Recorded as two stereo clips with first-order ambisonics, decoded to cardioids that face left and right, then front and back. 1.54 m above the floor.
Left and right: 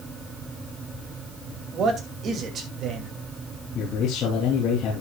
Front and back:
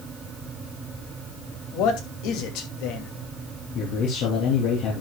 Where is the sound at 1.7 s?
30° right, 2.5 m.